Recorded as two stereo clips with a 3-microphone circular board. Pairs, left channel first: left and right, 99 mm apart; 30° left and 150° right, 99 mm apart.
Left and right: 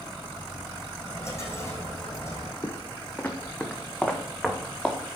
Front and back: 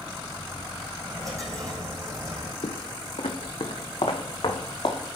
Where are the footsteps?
30° left, 0.9 m; by 5.0 s 5° left, 2 m.